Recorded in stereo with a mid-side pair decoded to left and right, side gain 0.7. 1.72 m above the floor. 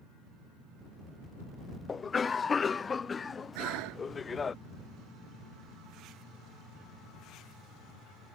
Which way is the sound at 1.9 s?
25° left.